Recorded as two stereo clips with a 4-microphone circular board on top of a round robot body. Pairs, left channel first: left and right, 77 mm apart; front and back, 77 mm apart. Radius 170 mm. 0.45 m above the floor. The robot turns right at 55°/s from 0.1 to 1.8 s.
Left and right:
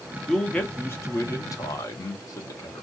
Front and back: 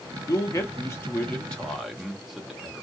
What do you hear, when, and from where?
0.3 s a man speaking: 5° left, 1.2 m; by 2.9 s 90° left, 1.2 m